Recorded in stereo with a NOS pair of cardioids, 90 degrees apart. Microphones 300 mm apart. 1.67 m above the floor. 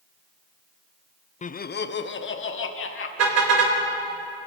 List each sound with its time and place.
1.4 s laughter: 25° left, 0.7 m; by 3.1 s 45° left, 3 m
3.2 s a car horn: 60° right, 3.5 m